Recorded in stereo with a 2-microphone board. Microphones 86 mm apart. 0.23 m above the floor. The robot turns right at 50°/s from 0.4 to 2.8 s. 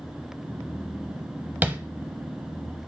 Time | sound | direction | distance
1.6 | tapping | 20° right (ahead or behind) | 0.6 m